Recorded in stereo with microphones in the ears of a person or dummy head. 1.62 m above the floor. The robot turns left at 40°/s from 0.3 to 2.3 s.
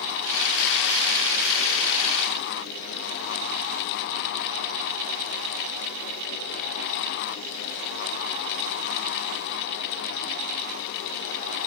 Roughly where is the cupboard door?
I don't hear a cupboard door.